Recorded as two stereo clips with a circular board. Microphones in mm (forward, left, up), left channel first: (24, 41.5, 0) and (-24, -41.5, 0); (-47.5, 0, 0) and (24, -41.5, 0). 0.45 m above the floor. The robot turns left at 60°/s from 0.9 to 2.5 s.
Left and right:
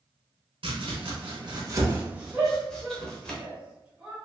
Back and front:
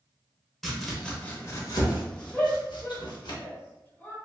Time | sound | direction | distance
0.6 | chopping | 120° right | 0.8 m
2.3 | a shout | 165° right | 1.3 m